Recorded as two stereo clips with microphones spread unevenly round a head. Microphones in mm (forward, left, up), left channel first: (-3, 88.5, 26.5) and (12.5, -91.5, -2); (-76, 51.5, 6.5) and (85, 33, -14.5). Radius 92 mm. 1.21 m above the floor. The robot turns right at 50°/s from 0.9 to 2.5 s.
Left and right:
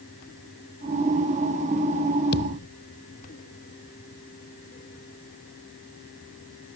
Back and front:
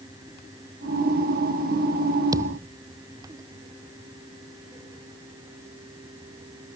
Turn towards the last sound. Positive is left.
turn(degrees=70)